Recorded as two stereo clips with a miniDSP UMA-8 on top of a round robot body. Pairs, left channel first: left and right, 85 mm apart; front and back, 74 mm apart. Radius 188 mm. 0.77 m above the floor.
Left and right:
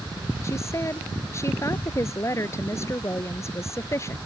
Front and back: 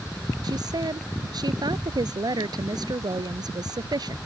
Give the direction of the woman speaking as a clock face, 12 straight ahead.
7 o'clock.